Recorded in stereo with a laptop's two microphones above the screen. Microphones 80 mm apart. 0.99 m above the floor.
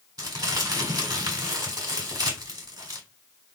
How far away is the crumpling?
About 1.1 m.